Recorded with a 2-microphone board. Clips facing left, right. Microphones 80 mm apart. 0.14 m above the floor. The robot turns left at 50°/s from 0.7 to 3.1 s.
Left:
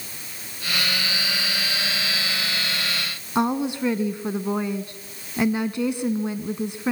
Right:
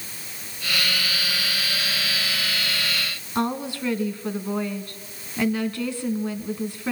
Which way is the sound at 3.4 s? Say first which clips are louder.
Left 3 dB; 20° left (ahead or behind).